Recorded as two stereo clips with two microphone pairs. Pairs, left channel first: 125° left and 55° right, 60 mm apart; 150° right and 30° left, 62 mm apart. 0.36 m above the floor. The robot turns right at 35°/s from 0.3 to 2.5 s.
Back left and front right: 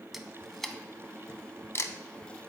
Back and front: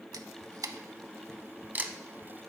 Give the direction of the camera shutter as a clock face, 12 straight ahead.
11 o'clock.